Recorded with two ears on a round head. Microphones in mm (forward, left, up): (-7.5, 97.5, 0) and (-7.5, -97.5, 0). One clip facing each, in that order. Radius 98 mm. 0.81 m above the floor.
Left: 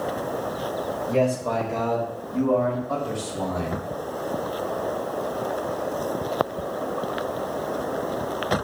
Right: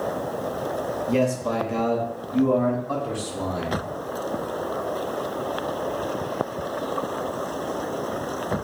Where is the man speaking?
40° right (ahead or behind), 1.2 m; by 3.8 s 50° right (ahead or behind), 3 m.